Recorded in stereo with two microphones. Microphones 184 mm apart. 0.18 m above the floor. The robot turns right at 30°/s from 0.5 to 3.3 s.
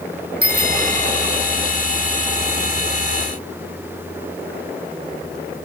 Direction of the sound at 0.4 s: 55° right (ahead or behind).